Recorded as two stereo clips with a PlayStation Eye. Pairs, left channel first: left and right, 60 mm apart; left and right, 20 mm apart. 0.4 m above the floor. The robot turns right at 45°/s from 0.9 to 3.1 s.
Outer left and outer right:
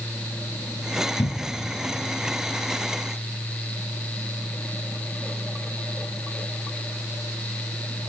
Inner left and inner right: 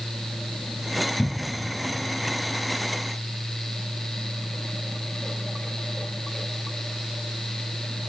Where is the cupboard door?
60° left (ahead or behind), 1.0 m; by 1.7 s 40° left (ahead or behind), 1.0 m.